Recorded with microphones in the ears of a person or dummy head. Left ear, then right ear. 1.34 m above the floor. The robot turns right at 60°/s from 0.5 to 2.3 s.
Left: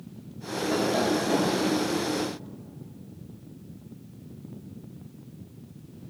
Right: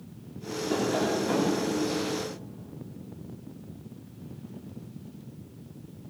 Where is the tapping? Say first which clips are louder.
Left 2 dB; 175° right, 2.5 m; by 1.6 s 120° right, 2.5 m.